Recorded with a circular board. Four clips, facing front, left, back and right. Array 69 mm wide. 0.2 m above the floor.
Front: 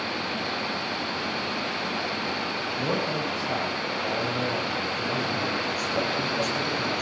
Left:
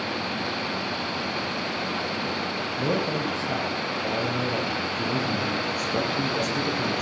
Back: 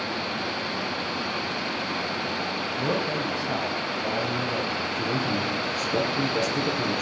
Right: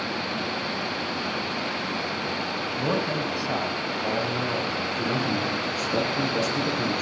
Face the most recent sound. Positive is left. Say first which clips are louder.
# right 1 dB, back 1 dB
turn(degrees=-125)